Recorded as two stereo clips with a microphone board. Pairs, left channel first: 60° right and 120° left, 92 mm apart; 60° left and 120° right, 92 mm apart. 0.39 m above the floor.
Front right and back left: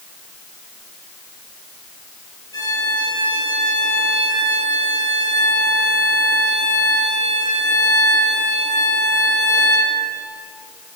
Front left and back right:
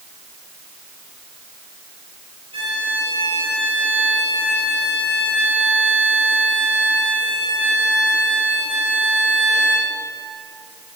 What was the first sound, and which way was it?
A violin, 105° right.